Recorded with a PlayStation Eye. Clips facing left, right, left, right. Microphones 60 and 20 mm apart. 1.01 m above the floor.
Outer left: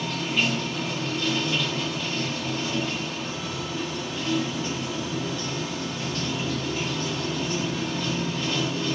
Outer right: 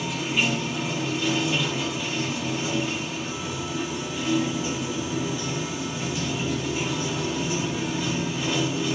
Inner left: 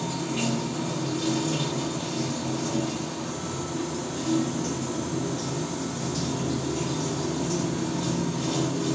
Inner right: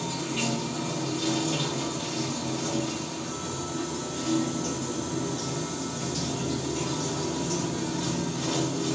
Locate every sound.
0.0 s running water: 10° right (ahead or behind), 2 m